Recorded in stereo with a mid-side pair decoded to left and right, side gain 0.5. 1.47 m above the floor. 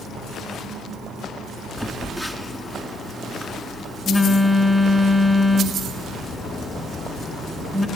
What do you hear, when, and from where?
1.8 s a phone buzzing: 5° right, 4.5 m